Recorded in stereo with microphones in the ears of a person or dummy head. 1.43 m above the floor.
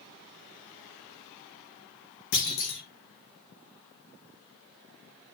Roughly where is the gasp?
I don't hear a gasp.